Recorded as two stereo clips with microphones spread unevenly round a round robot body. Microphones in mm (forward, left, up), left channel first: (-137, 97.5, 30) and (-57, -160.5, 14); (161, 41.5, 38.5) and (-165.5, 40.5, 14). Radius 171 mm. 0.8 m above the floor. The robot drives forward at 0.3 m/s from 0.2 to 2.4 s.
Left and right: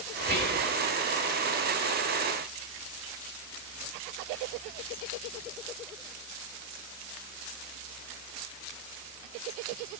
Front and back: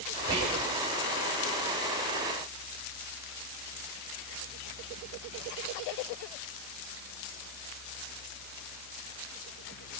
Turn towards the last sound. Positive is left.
turn(degrees=-130)